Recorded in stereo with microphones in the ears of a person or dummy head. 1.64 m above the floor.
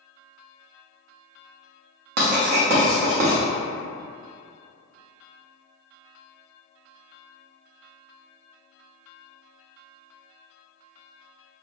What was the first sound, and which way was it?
Writing, 55° right (ahead or behind).